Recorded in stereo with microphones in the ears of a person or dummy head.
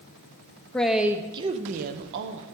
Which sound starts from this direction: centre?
A man speaking, at 0.7 s.